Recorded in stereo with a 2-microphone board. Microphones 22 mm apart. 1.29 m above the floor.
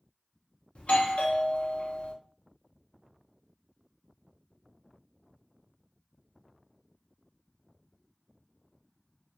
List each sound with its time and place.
0.8 s a doorbell: 60° left (ahead or behind), 0.6 m